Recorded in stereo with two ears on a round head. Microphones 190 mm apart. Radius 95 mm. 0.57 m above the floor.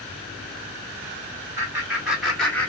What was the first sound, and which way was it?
Laughter, 15° right (ahead or behind).